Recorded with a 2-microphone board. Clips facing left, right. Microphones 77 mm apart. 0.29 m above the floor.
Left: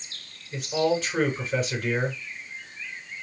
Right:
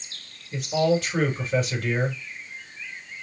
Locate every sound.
0.5 s a man speaking: centre (ahead or behind), 4 m